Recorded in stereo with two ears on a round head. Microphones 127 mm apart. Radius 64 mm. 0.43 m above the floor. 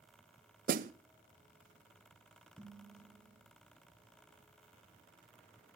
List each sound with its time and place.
0.7 s a snare drum: 60° right (ahead or behind), 0.6 m
2.6 s dishes clattering: 10° right (ahead or behind), 3.5 m